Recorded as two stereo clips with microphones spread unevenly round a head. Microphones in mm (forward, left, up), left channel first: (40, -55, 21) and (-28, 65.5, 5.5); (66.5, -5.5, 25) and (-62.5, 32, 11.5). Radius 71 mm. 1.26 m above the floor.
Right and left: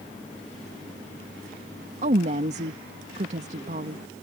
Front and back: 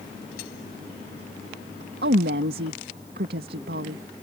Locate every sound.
2.0 s a woman speaking: 165° left